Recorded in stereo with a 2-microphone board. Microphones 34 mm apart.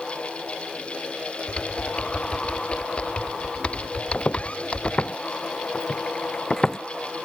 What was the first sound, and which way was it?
Typing on a keyboard, 35° left (ahead or behind).